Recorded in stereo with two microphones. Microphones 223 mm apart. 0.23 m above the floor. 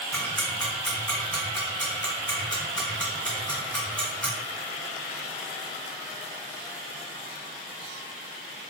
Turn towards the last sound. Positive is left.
turn(degrees=10)  # may be behind; listen again after turning